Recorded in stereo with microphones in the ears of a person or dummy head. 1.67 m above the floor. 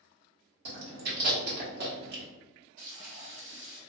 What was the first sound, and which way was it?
Chewing, 60° right (ahead or behind).